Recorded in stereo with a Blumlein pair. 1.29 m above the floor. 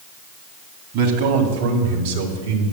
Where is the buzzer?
I don't hear a buzzer.